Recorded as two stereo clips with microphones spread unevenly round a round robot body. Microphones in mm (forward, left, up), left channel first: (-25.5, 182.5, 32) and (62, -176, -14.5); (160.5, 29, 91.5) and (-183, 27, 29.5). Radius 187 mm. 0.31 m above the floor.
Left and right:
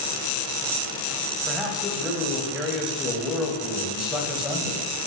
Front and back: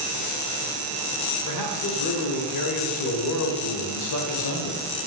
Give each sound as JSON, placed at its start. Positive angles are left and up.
{"t": 1.5, "sound": "a man speaking", "azimuth_deg": 5, "distance_m": 2.0}